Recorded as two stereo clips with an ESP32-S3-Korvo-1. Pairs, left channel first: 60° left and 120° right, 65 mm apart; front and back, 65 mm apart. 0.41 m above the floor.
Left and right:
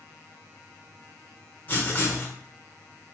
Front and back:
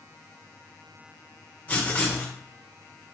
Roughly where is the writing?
Ahead left.